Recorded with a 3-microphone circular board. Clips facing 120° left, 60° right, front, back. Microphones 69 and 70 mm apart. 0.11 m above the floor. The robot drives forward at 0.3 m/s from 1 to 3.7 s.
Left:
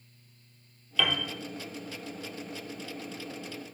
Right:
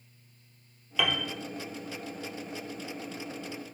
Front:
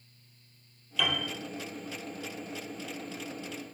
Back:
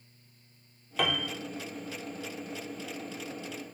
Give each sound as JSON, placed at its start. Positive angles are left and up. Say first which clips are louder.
{"t": 1.0, "sound": "a piano", "louder": "even, back 1 dB", "azimuth_deg": -140, "distance_m": 0.6}